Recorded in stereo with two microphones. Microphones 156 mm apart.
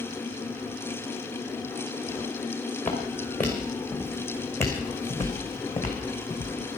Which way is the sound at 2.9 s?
10° left (ahead or behind).